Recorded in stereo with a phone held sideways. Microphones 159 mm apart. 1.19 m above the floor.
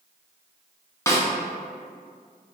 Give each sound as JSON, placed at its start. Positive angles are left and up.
{"t": 1.1, "sound": "a snare drum", "side_deg": 15, "distance_m": 0.6}